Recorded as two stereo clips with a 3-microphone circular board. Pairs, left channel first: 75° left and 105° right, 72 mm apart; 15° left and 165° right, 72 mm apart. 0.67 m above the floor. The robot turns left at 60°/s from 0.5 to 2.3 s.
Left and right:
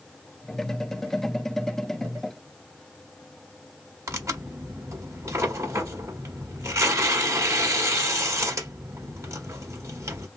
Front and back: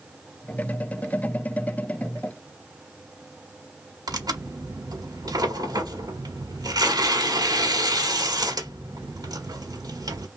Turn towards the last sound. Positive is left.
turn(degrees=-150)